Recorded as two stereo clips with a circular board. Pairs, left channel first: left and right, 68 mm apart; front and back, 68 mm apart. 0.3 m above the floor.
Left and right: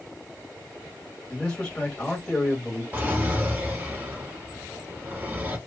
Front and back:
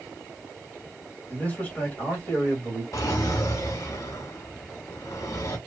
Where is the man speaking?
30° left, 1.5 m.